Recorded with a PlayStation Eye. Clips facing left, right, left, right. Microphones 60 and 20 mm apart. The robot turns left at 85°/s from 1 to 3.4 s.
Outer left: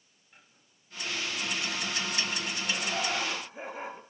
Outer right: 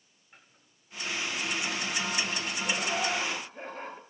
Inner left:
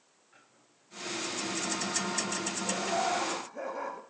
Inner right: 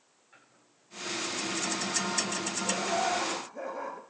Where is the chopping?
30° right (ahead or behind), 9.5 m; by 2.1 s 65° left (ahead or behind), 9.5 m.